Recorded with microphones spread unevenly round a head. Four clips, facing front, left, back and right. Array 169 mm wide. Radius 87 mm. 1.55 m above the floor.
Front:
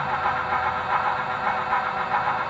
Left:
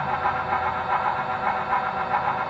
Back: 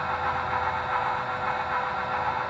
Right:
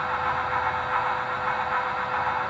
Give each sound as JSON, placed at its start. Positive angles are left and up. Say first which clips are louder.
{"t": 0.0, "sound": "a fan", "louder": "left 2 dB, front 3 dB", "azimuth_deg": 65, "distance_m": 1.5}